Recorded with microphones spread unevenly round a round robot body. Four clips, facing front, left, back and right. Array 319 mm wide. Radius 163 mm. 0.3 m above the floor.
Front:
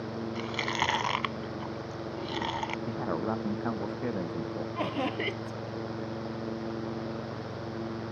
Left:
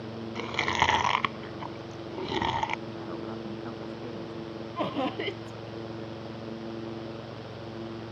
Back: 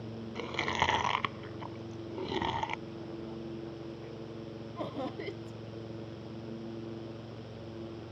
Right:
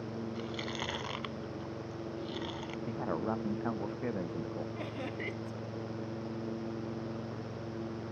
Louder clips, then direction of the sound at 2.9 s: Right 2 dB, front 10 dB; 20° right.